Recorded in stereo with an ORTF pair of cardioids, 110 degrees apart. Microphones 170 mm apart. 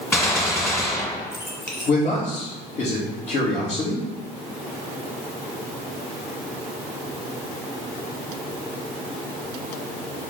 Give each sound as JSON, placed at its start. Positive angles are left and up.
{"t": 0.1, "sound": "a gunshot", "azimuth_deg": 15, "distance_m": 1.9}
{"t": 1.9, "sound": "a man speaking", "azimuth_deg": 50, "distance_m": 2.5}